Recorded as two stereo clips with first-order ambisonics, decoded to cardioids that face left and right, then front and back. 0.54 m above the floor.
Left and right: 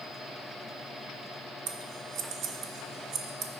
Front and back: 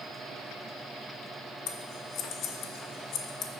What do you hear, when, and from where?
1.7 s scissors: 45° right, 0.6 m